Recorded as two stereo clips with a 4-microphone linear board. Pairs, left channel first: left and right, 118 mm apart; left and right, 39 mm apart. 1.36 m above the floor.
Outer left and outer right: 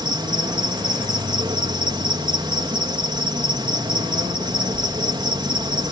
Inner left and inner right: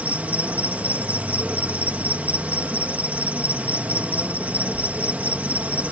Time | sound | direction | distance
0.0 | an insect | 40° right (ahead or behind) | ?